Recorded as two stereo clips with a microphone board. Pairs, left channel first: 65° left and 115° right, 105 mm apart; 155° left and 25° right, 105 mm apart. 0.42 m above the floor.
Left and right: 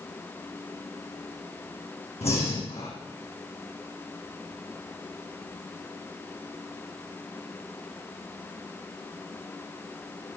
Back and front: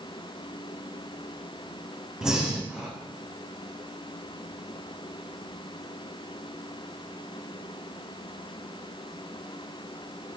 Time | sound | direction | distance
2.2 | breathing | 60° left | 4.5 m